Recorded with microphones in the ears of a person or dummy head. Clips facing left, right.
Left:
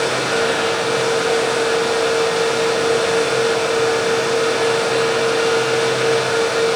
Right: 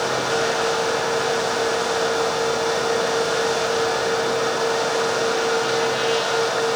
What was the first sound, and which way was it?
Only background noise.